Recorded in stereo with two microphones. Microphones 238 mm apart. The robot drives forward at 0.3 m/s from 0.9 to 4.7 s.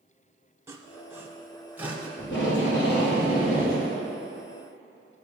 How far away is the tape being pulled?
About 1.7 m.